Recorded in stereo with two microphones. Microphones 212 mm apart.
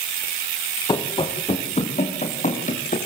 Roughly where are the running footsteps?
Centre.